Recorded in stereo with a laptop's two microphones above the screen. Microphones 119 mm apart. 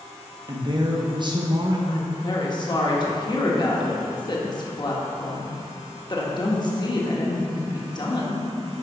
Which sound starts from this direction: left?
A woman speaking, at 1.9 s.